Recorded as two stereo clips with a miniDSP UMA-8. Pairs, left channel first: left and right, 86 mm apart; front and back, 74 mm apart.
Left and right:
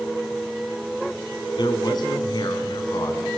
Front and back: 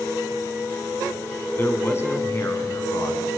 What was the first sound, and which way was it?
A man speaking, 60° left.